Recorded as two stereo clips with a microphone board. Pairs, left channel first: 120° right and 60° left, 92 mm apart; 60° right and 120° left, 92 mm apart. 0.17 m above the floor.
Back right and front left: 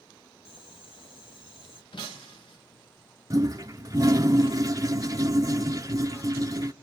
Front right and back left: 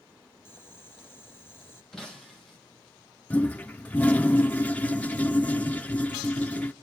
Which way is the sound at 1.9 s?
145° right.